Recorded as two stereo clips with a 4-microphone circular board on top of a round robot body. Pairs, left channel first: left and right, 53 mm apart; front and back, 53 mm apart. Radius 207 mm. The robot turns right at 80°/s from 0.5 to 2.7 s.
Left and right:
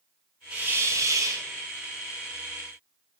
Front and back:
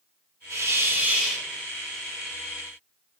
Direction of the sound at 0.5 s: 160° right.